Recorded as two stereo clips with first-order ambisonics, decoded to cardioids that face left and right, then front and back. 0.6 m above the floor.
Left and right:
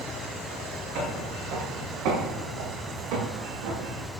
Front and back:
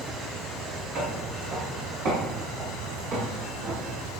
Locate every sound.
0.9 s footsteps: 135° right, 4.5 m; by 4.1 s 115° right, 4.5 m